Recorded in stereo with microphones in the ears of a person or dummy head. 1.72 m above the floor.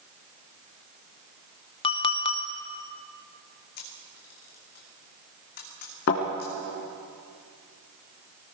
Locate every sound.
1.8 s a clink: 30° left (ahead or behind), 0.9 m
3.8 s a camera shutter: 50° left (ahead or behind), 3 m
6.1 s a thud: 55° left (ahead or behind), 3 m